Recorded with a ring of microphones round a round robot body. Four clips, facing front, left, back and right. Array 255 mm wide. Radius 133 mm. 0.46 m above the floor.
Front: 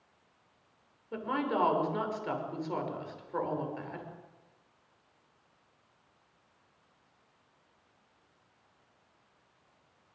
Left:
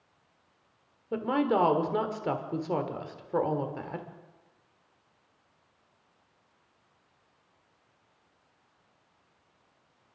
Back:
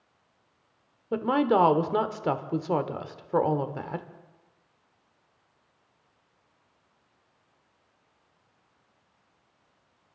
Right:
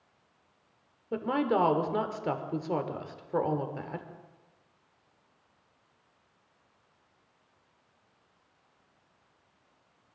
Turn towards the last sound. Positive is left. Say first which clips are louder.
# left 1 dB, back 9 dB
turn(degrees=180)